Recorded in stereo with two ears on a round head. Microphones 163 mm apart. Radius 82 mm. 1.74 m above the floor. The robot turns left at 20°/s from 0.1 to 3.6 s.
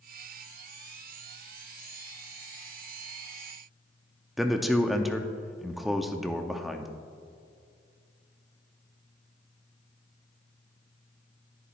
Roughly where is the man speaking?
Centre.